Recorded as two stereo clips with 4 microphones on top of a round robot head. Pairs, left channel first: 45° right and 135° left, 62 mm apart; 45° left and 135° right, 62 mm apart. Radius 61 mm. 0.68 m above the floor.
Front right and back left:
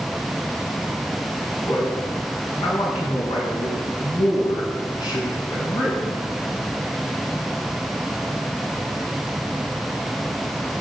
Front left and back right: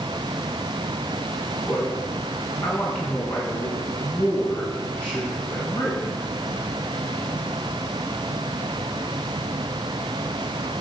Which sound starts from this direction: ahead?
A man speaking, at 1.7 s.